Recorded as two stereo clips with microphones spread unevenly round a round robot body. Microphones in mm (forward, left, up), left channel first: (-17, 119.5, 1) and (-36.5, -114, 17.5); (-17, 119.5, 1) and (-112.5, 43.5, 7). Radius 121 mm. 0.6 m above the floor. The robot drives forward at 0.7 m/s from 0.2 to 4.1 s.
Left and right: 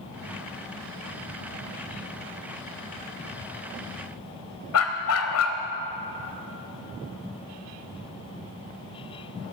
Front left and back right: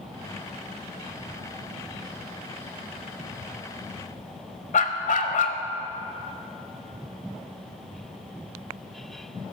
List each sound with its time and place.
4.7 s a dog barking: 50° left, 1.0 m